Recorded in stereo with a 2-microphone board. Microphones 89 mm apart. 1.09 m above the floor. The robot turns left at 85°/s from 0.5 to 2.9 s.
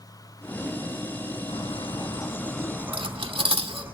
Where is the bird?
100° left, 3.5 m; by 3.9 s 20° right, 3.5 m.